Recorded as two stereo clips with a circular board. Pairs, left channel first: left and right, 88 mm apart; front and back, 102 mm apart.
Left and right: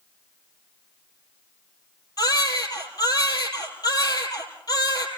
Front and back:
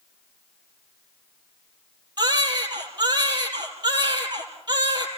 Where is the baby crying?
135° left, 4.5 m.